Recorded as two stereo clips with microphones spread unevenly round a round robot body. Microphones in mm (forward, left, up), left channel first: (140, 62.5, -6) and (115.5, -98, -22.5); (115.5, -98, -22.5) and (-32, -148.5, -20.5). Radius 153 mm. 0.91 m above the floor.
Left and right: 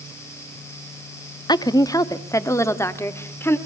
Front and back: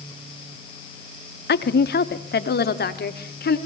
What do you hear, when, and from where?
1.5 s a woman speaking: 15° left, 1.2 m; by 3.6 s 5° left, 2.5 m